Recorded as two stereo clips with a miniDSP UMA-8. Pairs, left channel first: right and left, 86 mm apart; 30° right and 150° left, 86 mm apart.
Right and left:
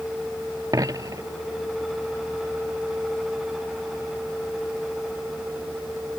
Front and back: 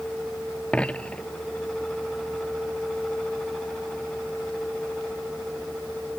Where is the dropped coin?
45° left.